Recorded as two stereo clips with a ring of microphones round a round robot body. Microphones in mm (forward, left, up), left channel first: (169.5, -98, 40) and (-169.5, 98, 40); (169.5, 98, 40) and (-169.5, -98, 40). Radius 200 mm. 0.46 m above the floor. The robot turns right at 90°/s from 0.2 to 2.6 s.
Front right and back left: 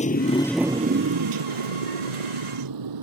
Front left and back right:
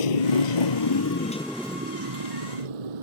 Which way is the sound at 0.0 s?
45° left.